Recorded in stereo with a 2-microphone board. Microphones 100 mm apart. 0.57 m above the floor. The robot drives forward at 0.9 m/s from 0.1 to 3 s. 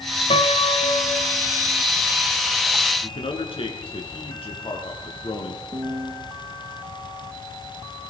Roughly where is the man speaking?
Left.